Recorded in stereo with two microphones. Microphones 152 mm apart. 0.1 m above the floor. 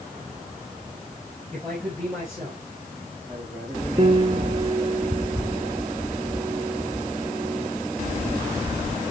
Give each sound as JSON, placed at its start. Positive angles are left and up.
{"t": 1.5, "sound": "a man speaking", "side_deg": 5, "distance_m": 6.0}
{"t": 4.0, "sound": "a piano", "side_deg": -35, "distance_m": 0.8}